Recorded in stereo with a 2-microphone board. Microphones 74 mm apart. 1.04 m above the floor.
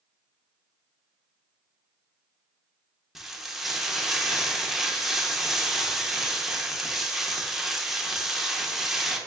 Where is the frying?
5° right (ahead or behind), 0.6 m.